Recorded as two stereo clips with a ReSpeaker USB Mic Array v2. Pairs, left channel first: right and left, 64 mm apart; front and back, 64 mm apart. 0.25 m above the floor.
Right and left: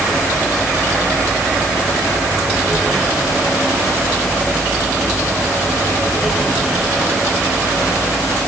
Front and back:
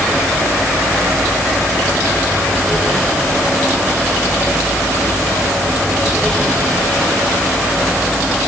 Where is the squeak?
I don't hear a squeak.